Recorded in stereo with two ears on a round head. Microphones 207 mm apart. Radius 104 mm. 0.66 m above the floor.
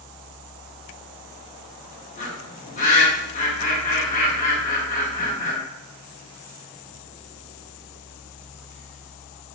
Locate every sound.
2.2 s a bird: 35° left (ahead or behind), 1.3 m